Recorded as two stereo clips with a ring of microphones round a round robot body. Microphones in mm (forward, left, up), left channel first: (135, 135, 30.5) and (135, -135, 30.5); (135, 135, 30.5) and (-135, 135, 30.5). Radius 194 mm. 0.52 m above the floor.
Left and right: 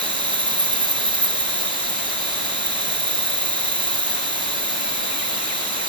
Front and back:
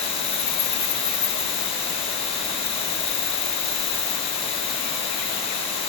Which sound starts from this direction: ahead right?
An insect, at 0.0 s.